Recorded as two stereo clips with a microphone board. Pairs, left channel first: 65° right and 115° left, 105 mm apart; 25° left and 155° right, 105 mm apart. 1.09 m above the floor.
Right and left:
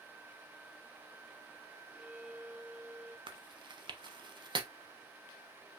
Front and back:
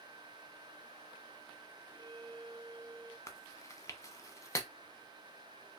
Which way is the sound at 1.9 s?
175° right.